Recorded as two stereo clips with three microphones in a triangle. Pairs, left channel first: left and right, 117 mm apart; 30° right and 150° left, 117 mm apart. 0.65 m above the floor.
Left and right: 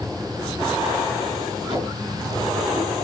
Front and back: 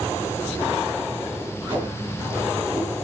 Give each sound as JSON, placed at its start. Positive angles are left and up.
{"t": 1.7, "sound": "tape being pulled", "azimuth_deg": -145, "distance_m": 7.5}